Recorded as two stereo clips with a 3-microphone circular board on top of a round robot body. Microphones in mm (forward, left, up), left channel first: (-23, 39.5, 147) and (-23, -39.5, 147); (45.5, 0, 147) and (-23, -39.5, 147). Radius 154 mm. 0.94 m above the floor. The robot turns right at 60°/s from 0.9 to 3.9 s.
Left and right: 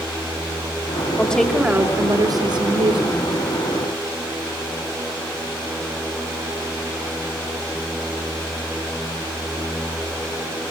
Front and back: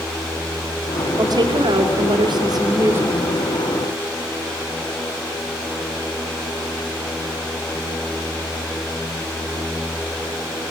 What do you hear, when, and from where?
1.2 s a woman speaking: 165° left, 3.5 m; by 3.3 s 70° right, 3.5 m